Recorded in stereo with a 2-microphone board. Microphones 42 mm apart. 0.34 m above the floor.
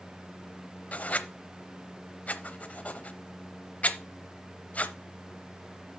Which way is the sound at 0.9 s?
35° left (ahead or behind).